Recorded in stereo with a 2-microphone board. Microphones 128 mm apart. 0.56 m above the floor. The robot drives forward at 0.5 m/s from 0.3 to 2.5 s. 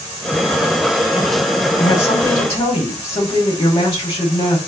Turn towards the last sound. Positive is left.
turn(degrees=25)  # may be behind; listen again after turning